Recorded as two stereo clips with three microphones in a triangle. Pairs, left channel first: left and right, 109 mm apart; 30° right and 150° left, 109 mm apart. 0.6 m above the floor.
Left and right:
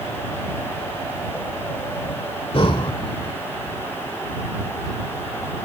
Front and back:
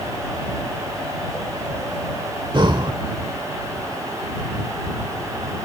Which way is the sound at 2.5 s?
115° left.